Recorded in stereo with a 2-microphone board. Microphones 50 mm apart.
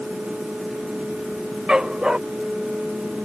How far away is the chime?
No chime in this recording.